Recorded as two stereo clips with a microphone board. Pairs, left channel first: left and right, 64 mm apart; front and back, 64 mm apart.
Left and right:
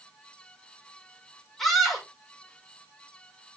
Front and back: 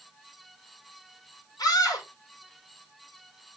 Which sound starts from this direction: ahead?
A scream, at 1.6 s.